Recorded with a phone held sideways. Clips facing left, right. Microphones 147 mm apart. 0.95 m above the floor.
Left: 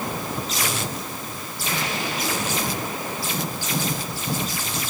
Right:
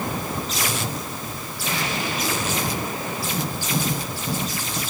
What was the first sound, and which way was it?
Only background noise.